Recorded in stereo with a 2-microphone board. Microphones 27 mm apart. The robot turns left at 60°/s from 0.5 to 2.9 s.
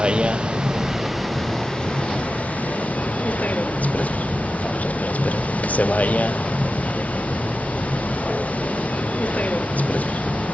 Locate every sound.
0.0 s a vehicle: 140° right; by 10.5 s 75° left